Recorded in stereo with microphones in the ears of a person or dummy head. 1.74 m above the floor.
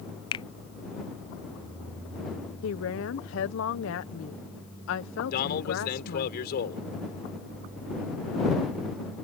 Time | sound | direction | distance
0.3 | a finger snap | 20° left (ahead or behind) | ?
2.6 | a woman speaking | 70° left (ahead or behind) | ?
5.3 | a man speaking | 55° left (ahead or behind) | ?